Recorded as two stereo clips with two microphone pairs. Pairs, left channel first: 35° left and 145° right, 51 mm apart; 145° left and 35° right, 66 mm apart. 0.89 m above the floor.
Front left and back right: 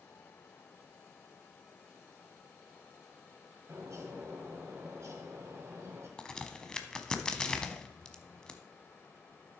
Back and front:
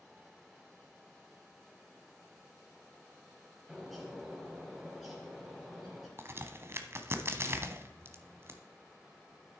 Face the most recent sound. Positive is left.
turn(degrees=-25)